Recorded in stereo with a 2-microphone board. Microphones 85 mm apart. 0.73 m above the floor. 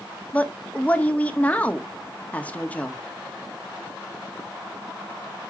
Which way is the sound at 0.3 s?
15° left (ahead or behind).